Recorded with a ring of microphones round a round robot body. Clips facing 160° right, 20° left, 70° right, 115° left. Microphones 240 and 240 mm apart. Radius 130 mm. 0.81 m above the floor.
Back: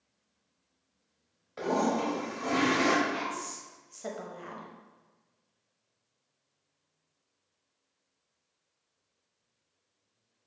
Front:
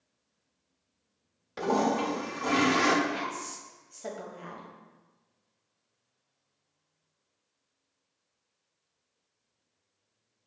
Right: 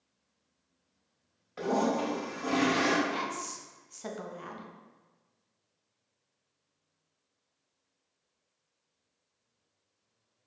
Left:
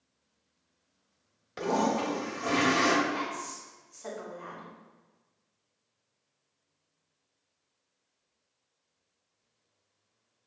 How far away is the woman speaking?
About 0.8 m.